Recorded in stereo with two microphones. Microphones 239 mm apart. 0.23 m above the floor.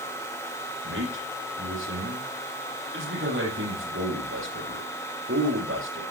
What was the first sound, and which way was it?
A man speaking, 55° right (ahead or behind).